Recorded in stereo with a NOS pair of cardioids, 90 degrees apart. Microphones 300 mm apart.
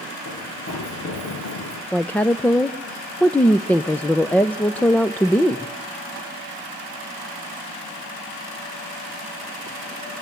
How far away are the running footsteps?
About 5 m.